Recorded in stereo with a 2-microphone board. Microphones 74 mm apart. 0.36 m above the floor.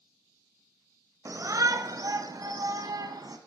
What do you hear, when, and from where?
1.2 s a shout: 45° right (ahead or behind), 2.0 m; by 3.4 s 60° right (ahead or behind), 3.5 m